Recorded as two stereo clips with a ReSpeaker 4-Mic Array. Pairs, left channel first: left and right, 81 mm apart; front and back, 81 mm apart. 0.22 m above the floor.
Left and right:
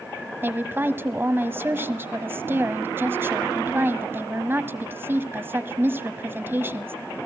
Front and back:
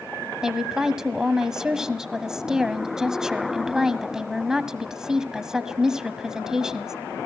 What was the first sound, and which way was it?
A woman speaking, 105° right.